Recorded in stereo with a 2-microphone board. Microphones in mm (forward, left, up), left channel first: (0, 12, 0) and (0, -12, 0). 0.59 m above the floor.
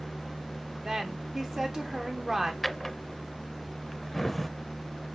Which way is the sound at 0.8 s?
25° right (ahead or behind).